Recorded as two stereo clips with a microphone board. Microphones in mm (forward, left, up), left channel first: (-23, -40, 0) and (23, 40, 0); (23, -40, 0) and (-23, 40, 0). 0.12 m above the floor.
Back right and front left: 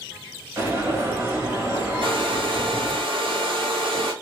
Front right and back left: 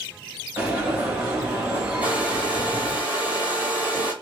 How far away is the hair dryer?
About 1.0 m.